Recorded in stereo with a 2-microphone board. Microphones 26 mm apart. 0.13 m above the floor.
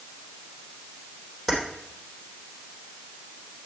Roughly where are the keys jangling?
Centre.